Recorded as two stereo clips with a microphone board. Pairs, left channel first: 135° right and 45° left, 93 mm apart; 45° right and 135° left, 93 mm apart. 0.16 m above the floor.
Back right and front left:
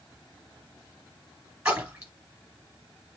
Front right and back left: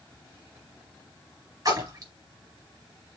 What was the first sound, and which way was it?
A splash, 115° left.